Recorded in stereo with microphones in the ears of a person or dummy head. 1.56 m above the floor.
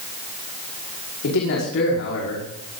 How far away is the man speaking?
About 5 m.